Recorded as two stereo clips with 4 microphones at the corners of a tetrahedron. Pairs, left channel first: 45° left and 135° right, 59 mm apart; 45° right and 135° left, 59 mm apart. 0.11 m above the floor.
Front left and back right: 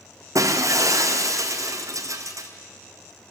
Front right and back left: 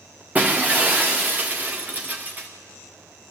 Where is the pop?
No pop in this recording.